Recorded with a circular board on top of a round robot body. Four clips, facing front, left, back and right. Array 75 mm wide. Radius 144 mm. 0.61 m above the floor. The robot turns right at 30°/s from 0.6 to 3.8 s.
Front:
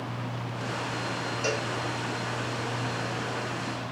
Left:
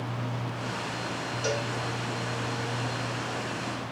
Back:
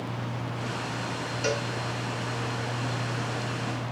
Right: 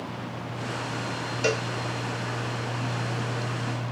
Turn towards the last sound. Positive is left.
turn(degrees=-25)